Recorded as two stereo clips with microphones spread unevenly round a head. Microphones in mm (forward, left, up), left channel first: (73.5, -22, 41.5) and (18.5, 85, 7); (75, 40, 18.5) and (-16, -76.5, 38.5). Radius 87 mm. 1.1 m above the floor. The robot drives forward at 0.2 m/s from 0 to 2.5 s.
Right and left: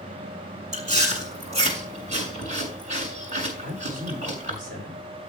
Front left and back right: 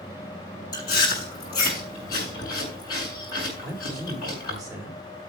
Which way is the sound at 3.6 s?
145° left.